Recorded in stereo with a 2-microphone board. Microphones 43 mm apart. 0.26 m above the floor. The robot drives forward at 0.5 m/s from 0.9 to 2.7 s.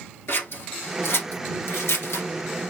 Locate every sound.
0.3 s scissors: 65° left (ahead or behind), 1.3 m; by 2.3 s 80° left, 1.2 m